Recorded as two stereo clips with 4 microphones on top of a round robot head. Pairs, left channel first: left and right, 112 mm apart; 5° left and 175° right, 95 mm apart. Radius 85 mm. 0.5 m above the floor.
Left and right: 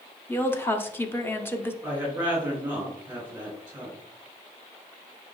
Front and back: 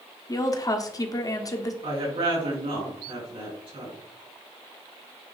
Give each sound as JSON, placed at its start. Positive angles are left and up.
{"t": 0.3, "sound": "a woman speaking", "azimuth_deg": 30, "distance_m": 1.2}
{"t": 1.8, "sound": "a woman speaking", "azimuth_deg": -165, "distance_m": 3.5}